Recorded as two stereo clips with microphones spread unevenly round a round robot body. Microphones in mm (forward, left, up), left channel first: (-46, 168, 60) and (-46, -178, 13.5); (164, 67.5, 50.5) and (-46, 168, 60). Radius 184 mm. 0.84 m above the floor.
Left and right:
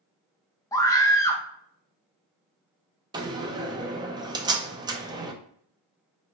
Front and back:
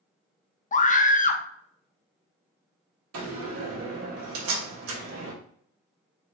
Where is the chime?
I don't hear a chime.